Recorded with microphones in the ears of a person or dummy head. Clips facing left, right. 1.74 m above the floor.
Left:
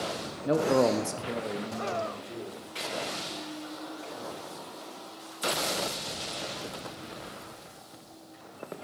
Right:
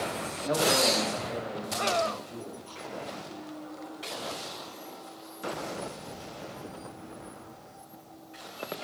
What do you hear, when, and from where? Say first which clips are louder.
0.5 s a man speaking: left 3 dB; 25° left (ahead or behind), 0.6 m; by 2.7 s 40° left (ahead or behind), 2 m